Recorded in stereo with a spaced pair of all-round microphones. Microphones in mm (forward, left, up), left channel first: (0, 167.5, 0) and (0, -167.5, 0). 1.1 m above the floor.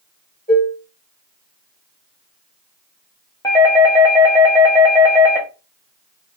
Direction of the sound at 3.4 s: 10° left (ahead or behind).